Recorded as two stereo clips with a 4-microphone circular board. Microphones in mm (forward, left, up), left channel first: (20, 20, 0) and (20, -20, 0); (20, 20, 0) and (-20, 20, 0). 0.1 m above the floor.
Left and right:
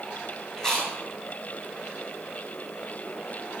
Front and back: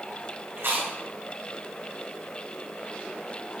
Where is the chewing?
160° left, 2.5 m.